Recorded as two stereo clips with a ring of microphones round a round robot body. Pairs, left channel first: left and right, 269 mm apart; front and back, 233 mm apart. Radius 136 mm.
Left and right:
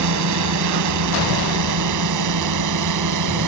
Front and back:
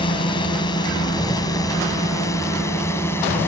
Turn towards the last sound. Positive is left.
turn(degrees=-80)